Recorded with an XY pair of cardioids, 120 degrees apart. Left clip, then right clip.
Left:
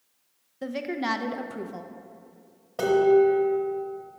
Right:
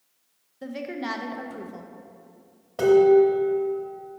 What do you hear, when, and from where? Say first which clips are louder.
0.6 s a woman speaking: left 3 dB; 25° left, 0.5 m
2.8 s dishes clattering: right 3 dB; straight ahead, 1.6 m